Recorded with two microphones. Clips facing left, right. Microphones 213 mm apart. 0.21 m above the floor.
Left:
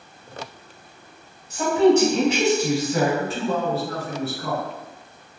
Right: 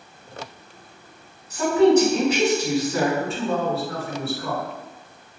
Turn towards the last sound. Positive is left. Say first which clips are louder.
# even
turn(degrees=35)  # may be behind; listen again after turning